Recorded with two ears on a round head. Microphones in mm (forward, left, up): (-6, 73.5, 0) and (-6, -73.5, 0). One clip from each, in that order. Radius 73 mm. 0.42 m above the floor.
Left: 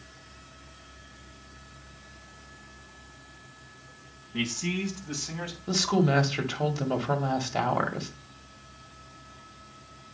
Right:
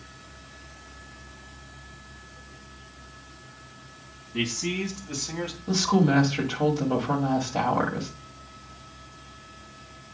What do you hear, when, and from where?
4.3 s a man speaking: 30° left (ahead or behind), 3.5 m; by 5.6 s 35° left (ahead or behind), 2.5 m
5.7 s a woman speaking: 60° left (ahead or behind), 1.8 m